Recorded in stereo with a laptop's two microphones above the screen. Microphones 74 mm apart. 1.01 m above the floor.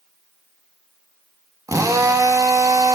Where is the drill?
50° right (ahead or behind), 1.8 m.